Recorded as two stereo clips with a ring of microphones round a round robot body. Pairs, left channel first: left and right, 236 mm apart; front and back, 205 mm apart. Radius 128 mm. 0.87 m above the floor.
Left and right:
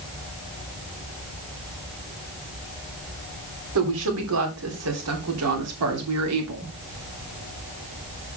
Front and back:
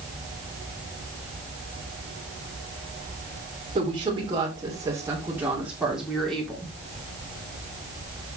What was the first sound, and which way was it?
A woman speaking, 110° right.